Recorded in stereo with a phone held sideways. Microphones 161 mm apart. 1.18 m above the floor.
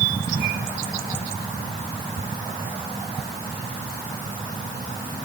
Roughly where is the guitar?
I don't hear a guitar.